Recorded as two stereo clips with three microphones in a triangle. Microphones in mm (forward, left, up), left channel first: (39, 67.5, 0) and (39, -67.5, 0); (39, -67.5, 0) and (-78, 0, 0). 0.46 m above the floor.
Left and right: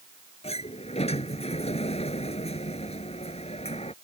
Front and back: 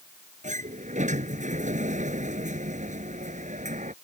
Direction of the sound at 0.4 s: 130° left.